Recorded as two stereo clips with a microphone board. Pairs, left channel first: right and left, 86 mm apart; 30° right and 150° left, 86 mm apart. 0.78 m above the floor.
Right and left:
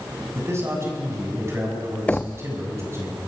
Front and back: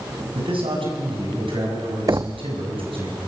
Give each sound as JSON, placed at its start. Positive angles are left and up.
{"t": 0.3, "sound": "a man speaking", "azimuth_deg": 150, "distance_m": 7.0}
{"t": 2.1, "sound": "knocking", "azimuth_deg": -165, "distance_m": 0.5}